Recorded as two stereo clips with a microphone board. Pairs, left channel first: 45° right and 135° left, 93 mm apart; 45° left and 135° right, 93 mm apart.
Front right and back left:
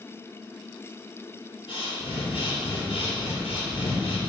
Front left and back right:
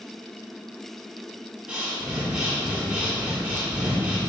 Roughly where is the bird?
No bird in this recording.